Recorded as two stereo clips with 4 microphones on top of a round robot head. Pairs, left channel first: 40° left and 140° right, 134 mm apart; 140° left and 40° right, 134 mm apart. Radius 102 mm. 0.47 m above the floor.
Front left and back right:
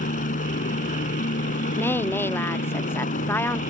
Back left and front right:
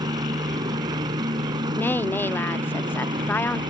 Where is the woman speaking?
90° left.